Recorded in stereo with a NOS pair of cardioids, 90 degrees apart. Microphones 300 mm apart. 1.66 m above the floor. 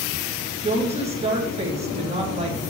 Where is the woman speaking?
20° right, 2 m.